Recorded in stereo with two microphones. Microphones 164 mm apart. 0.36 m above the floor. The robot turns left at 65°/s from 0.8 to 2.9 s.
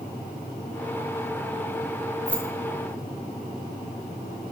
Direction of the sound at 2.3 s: 5° left (ahead or behind).